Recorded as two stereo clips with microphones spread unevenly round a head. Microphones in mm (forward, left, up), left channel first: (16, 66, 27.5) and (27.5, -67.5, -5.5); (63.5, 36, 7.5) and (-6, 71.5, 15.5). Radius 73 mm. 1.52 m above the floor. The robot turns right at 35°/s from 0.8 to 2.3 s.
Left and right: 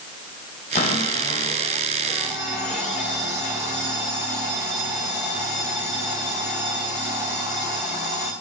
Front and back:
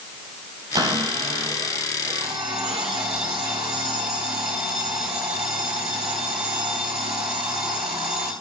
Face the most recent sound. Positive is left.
turn(degrees=-160)